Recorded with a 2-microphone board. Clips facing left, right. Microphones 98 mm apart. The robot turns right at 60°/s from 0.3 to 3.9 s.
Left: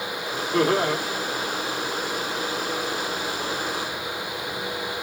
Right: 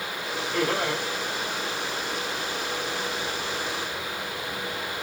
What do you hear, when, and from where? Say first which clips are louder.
0.5 s laughter: left 6 dB; 50° left (ahead or behind), 1.5 m; by 1.0 s 25° left (ahead or behind), 1.5 m